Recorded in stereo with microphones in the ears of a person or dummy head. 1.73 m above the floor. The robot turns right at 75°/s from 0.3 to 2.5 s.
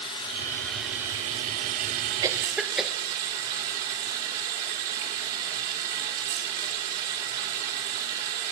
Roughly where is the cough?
Centre.